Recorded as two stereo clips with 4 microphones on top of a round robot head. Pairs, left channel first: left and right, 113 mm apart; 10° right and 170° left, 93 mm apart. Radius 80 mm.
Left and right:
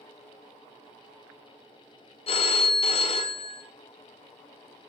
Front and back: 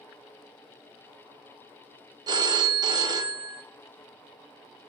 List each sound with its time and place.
2.3 s a phone ringing: 125° left, 0.9 m